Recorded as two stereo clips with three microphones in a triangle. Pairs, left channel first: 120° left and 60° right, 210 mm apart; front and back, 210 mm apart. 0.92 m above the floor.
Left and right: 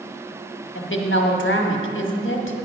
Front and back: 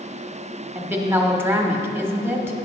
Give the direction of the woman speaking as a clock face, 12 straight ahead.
9 o'clock.